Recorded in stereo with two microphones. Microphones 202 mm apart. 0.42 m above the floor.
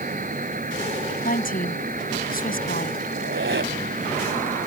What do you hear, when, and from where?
0.0 s an insect: 40° right (ahead or behind)
1.2 s a woman speaking: 45° left (ahead or behind)
3.1 s a squeak: 70° right (ahead or behind)